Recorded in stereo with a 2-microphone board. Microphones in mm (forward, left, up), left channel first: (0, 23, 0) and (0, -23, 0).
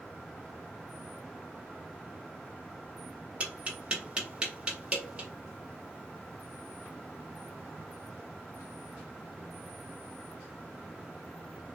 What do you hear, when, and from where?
3.4 s tapping: 25° right (ahead or behind), 1.5 m